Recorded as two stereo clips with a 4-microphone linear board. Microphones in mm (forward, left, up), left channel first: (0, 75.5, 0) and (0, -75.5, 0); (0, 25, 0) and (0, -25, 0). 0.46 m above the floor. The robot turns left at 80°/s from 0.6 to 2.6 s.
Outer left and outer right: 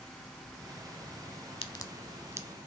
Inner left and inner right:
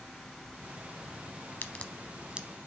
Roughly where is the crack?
Left.